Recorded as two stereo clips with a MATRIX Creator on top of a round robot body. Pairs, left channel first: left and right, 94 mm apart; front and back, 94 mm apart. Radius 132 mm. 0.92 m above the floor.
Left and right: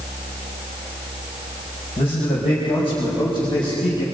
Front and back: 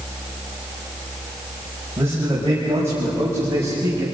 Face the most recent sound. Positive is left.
turn(degrees=120)